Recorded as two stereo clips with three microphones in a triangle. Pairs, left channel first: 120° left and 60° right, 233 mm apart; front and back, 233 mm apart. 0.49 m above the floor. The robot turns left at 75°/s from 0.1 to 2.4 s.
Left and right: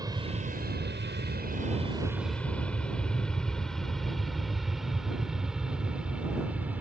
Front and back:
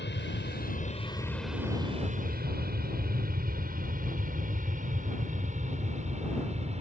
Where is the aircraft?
10° left; by 6.8 s 140° right.